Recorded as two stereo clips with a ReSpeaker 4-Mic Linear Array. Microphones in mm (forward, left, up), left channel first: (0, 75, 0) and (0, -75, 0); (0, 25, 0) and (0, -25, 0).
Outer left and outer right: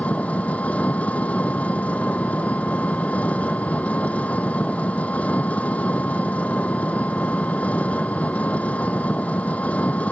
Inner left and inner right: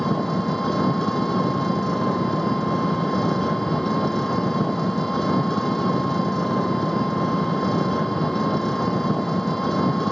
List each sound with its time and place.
0.0 s an engine running: 10° left (ahead or behind)